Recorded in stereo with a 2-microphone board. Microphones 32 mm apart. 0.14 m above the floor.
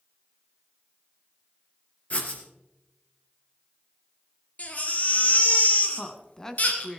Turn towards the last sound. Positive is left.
turn(degrees=15)  # may be behind; listen again after turning